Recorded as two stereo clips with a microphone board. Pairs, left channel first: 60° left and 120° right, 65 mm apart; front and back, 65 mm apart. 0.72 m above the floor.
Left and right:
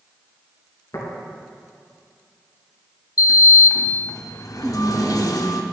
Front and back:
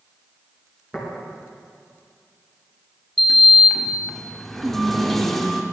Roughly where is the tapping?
Left.